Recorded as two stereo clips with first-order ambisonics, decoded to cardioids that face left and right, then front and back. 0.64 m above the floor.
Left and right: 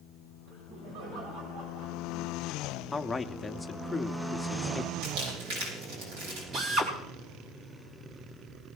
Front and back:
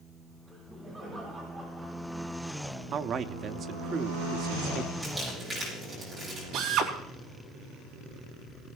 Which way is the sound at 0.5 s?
100° right.